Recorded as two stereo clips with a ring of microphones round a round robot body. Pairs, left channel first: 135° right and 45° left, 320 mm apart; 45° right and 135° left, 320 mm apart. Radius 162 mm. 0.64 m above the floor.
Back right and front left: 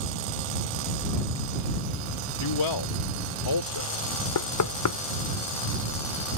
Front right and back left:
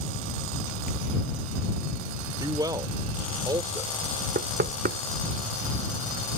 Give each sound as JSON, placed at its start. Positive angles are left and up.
{"t": 2.4, "sound": "a man speaking", "azimuth_deg": -145}
{"t": 4.3, "sound": "knocking", "azimuth_deg": -165}